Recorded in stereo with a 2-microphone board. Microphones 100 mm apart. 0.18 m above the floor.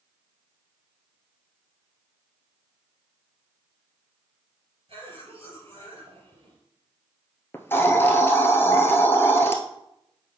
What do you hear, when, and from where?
4.9 s a cough: 70° right (ahead or behind), 4 m
7.5 s a hiss: 25° left (ahead or behind), 1.0 m